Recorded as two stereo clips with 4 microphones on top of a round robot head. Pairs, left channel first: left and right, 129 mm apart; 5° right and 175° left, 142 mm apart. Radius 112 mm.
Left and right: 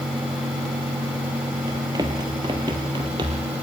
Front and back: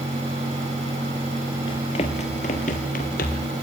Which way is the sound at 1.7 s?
40° right.